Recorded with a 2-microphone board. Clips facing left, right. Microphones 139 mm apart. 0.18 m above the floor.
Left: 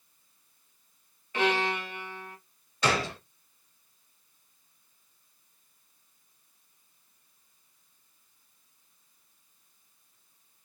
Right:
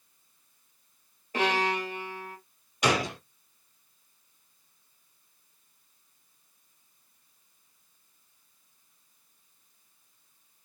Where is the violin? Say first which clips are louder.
Even; 40° right (ahead or behind), 3 m.